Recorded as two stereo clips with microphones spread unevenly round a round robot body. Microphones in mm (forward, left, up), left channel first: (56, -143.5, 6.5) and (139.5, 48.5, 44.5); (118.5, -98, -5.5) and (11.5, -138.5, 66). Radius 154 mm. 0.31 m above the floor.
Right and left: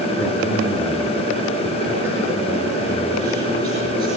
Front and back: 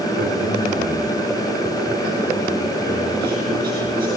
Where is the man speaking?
160° left, 6.5 m; by 4.1 s 145° left, 8 m.